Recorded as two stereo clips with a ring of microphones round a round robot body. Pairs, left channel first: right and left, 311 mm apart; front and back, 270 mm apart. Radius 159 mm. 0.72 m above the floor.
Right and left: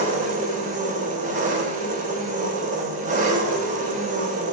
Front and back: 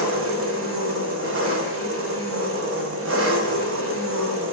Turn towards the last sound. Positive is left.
turn(degrees=150)